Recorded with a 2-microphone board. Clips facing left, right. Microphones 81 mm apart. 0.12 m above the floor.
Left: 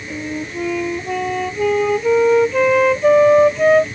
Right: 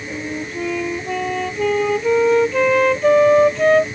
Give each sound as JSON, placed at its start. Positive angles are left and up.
{"t": 0.1, "sound": "a flute", "side_deg": 5}